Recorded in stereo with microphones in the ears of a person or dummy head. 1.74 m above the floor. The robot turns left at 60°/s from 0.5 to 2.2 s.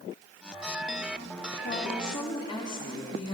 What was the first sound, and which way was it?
A woman speaking, 65° left.